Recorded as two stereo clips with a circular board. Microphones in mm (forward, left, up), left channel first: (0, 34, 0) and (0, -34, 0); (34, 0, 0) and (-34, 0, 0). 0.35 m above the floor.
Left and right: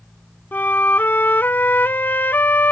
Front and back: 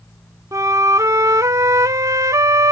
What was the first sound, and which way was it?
A flute, 150° left.